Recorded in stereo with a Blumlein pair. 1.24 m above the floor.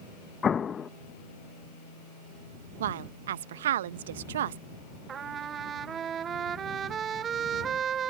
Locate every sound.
0.4 s an explosion: 20° left
2.8 s a woman speaking: 60° right
5.1 s a trumpet: 25° right